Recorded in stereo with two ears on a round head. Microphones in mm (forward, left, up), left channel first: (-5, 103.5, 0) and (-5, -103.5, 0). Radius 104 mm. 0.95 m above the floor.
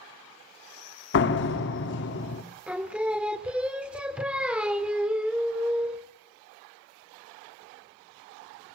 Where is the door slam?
55° left (ahead or behind), 1.3 m.